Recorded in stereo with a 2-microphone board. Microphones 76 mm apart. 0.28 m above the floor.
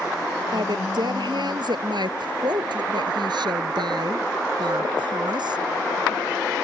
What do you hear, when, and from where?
0.5 s a woman speaking: 70° right (ahead or behind)